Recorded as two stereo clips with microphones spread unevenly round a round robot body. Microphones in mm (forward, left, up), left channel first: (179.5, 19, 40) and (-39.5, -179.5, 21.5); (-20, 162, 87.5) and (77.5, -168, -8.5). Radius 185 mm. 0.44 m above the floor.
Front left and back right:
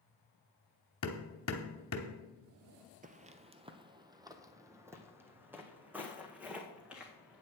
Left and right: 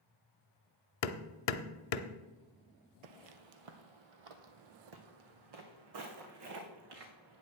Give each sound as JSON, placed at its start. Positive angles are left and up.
{"t": 1.0, "sound": "hammering", "azimuth_deg": 95, "distance_m": 0.6}
{"t": 3.0, "sound": "footsteps", "azimuth_deg": -75, "distance_m": 0.7}